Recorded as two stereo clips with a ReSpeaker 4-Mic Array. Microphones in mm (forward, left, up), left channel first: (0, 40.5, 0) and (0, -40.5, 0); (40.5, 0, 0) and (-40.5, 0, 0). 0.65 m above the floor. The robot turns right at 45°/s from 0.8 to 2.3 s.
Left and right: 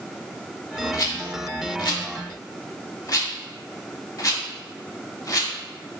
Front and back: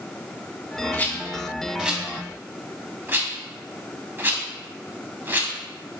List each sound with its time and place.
0.9 s a rattle: 60° left, 0.7 m; by 5.5 s 120° left, 0.7 m